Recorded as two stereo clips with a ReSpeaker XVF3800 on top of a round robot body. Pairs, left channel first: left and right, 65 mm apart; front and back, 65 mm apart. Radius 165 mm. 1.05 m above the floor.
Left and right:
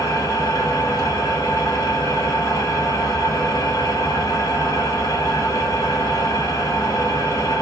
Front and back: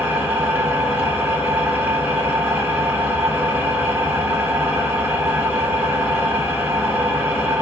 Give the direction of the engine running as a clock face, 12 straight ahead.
8 o'clock.